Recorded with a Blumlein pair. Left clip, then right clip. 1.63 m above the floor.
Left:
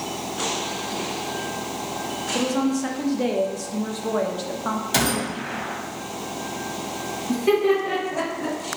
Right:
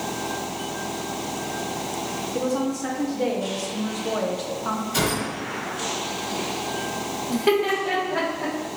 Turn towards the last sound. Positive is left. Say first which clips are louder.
# left 2 dB
turn(degrees=-40)